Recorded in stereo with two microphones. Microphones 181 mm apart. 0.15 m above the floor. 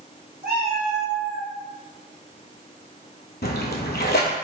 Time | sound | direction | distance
0.4 | a cat meowing | 60° right (ahead or behind) | 1.9 m
3.4 | a splash | 80° left | 0.6 m